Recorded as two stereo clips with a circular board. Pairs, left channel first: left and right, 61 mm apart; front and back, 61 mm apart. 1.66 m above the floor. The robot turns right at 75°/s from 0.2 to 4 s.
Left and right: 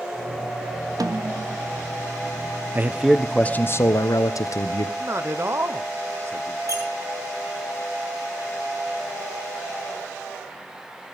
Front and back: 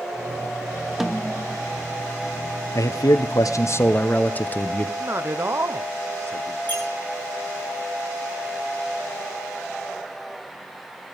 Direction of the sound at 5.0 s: 135° right.